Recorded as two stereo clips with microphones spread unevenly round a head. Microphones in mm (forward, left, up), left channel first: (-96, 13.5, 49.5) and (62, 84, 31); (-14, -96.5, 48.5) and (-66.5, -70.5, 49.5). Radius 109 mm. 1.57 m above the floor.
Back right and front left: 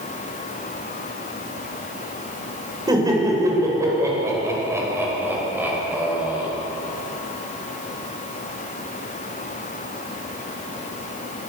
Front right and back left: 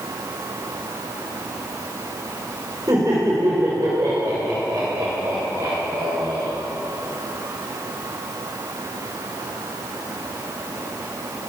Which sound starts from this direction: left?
Laughter, at 2.9 s.